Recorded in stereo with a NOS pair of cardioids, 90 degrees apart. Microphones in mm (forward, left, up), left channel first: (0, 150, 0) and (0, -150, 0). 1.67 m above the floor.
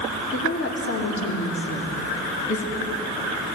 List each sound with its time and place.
0.3 s a woman speaking: 45° left, 4.5 m